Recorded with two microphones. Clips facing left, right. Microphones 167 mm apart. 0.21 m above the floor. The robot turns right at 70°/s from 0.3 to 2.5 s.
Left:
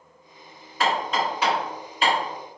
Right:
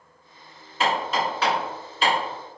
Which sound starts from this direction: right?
Hammering, at 0.8 s.